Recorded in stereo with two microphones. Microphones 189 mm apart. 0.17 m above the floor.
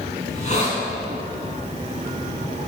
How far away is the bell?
No bell in this recording.